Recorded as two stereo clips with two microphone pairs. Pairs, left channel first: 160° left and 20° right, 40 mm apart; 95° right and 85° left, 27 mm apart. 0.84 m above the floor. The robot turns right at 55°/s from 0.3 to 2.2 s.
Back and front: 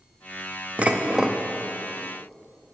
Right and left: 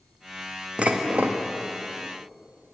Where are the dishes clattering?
35° left, 0.6 m; by 1.4 s 70° left, 0.6 m.